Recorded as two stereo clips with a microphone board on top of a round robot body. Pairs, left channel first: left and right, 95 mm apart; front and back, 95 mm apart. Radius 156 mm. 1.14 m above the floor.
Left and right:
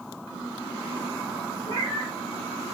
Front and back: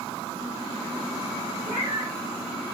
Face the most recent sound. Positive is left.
turn(degrees=-145)